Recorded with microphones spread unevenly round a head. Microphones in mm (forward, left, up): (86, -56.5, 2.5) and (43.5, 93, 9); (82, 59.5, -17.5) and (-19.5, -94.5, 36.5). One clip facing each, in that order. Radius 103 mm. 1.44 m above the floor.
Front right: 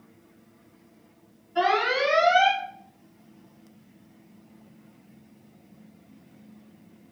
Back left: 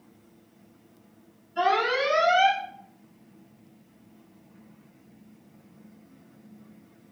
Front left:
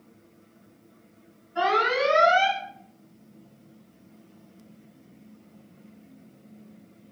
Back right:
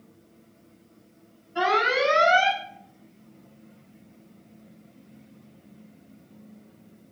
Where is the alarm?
75° right, 3 m.